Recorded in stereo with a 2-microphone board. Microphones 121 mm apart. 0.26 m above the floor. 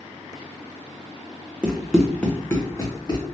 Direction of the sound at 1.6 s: 10° right (ahead or behind).